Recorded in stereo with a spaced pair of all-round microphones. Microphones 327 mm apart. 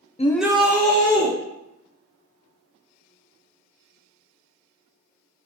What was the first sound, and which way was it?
A shout, 20° left (ahead or behind).